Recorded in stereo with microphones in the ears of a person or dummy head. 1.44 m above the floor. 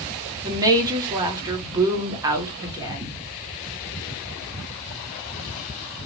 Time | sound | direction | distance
0.4 | a woman speaking | 20° right (ahead or behind) | 0.9 m